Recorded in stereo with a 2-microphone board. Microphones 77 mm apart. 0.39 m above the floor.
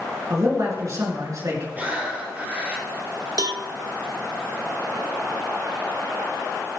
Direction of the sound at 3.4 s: 65° right (ahead or behind).